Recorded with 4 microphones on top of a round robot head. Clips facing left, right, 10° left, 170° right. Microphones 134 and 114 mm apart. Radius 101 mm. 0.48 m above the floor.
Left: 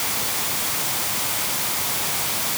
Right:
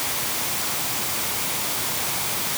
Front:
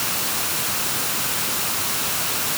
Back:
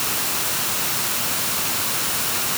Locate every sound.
Only background noise.